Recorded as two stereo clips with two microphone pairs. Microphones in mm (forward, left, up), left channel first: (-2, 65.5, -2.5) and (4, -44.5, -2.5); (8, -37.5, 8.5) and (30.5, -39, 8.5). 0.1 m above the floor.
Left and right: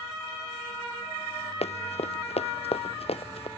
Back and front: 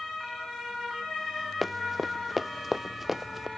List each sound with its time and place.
1.6 s running footsteps: 85° left; by 3.5 s 75° left